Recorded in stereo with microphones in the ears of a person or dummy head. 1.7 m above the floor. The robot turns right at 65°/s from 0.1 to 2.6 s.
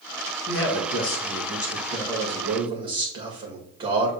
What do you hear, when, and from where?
0.5 s a man speaking: 70° left, 1.7 m; by 4.1 s 155° right, 1.7 m